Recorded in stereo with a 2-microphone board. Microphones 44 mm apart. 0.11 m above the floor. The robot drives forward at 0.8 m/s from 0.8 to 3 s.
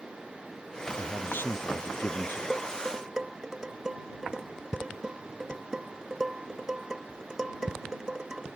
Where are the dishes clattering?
10° right (ahead or behind).